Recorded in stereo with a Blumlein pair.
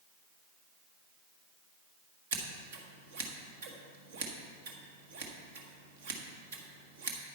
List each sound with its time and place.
2.3 s scissors: 55° right, 1.4 m